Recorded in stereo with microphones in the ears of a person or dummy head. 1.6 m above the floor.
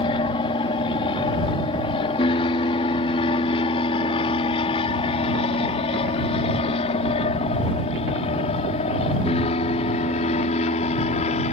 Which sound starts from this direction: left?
An aircraft, at 0.0 s.